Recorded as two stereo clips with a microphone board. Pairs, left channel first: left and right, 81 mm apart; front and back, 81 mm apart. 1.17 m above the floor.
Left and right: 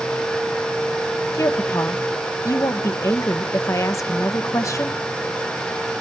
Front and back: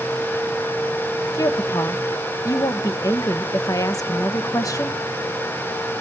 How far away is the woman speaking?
About 1.2 m.